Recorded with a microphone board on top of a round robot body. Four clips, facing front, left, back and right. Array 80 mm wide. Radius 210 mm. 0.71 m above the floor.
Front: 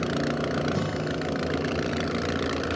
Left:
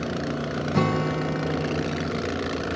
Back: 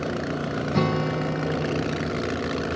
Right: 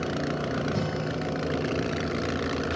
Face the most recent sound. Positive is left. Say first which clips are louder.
# left 6 dB, back 5 dB
turn(degrees=120)